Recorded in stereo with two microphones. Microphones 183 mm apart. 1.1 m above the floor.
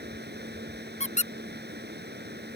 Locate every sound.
0.0 s running water: 65° right (ahead or behind)
1.0 s a squeak: 40° left (ahead or behind)